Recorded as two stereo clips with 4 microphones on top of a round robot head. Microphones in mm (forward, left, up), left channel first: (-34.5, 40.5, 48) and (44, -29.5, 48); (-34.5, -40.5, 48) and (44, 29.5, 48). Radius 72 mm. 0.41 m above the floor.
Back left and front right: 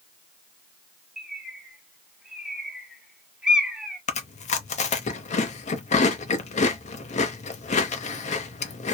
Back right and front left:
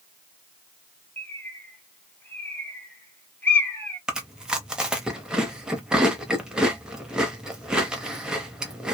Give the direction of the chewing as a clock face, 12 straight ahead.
8 o'clock.